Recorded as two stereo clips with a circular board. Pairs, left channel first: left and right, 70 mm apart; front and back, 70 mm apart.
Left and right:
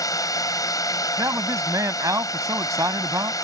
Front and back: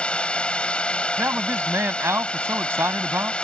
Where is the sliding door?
I don't hear a sliding door.